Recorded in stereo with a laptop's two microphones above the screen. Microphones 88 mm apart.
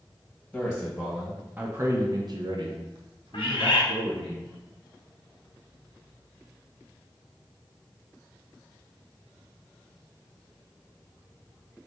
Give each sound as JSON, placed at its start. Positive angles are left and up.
{"t": 0.5, "sound": "a man speaking", "side_deg": 5, "distance_m": 1.1}
{"t": 3.3, "sound": "a bird", "side_deg": 75, "distance_m": 0.6}